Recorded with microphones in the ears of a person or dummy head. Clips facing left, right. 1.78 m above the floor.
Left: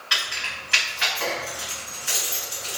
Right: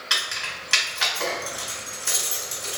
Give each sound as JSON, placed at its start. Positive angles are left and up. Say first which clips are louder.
{"t": 0.1, "sound": "keys jangling", "louder": "left 2 dB", "side_deg": -55, "distance_m": 1.3}